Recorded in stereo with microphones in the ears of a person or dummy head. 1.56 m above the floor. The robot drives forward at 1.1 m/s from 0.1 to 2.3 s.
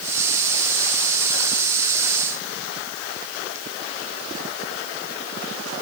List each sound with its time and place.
Only background noise.